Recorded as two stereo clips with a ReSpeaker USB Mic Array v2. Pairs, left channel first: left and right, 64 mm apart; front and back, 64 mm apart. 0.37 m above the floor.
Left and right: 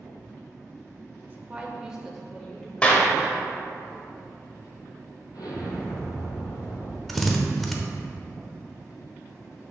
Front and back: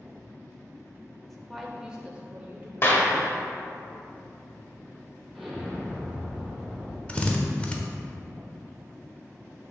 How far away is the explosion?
About 1.6 m.